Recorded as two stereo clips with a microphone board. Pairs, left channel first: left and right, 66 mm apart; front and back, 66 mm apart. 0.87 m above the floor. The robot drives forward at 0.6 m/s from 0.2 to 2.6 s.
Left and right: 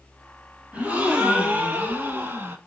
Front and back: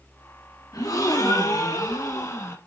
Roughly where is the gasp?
Ahead.